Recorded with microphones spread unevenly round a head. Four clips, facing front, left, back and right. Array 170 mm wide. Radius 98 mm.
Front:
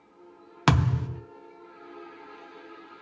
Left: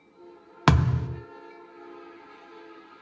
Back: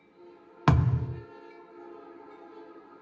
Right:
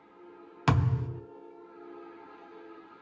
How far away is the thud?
About 0.6 m.